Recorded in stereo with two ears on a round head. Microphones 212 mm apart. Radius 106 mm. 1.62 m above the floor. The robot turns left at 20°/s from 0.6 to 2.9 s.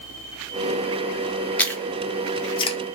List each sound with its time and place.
1.6 s chewing: 5° left (ahead or behind), 0.7 m; by 2.8 s 25° left (ahead or behind), 0.7 m